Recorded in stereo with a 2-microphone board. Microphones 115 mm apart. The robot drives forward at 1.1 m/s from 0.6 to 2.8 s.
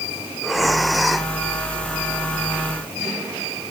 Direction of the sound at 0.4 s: Centre (ahead or behind).